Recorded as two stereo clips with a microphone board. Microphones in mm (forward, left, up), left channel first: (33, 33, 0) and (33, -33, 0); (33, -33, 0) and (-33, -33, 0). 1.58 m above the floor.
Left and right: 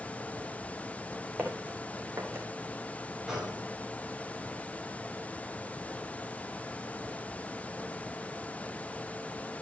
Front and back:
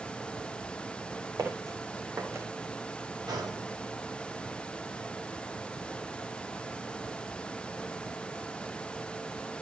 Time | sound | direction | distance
1.4 | footsteps | 165° right | 4 m
3.3 | a gunshot | 175° right | 6 m